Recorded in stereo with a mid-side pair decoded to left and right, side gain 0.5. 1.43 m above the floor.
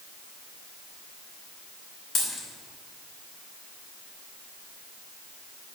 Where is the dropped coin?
40° left, 4 m.